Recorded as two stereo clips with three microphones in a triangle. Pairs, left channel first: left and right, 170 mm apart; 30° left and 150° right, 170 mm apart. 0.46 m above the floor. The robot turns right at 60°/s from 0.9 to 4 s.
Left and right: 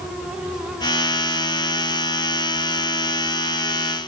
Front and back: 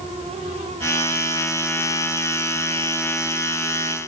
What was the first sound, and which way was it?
Only background noise.